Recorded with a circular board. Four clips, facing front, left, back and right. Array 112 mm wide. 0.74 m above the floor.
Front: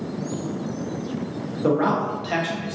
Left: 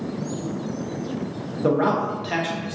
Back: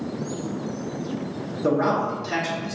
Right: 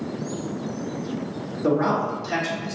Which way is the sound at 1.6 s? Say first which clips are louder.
Left 1 dB, front 1 dB; 55° left.